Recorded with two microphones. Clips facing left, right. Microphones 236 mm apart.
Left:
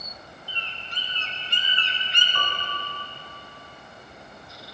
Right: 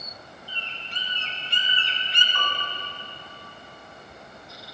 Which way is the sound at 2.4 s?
45° left (ahead or behind).